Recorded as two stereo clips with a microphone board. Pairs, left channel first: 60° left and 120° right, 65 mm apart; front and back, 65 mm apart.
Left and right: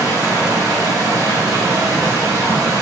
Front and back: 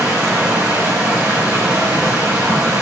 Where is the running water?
120° right, 5.5 m.